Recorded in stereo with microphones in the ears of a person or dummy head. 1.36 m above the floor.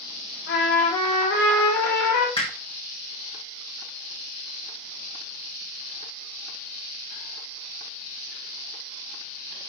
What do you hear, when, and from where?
0.5 s a trumpet: 70° left (ahead or behind), 3.5 m
2.4 s hammering: 35° left (ahead or behind), 2 m